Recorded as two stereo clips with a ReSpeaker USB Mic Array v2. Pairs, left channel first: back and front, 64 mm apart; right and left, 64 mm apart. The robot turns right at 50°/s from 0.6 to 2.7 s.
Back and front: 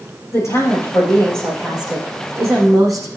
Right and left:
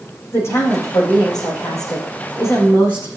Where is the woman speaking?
140° right, 7.5 m; by 3.1 s 35° right, 7.5 m.